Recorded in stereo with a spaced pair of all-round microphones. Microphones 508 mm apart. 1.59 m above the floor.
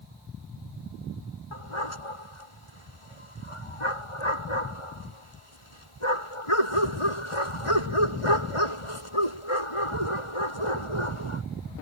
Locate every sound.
1.5 s a dog barking: 80° left